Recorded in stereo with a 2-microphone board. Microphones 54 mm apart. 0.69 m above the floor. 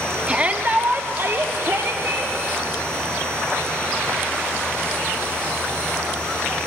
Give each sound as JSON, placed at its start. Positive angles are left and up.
{"t": 0.3, "sound": "a shout", "side_deg": -20, "distance_m": 0.9}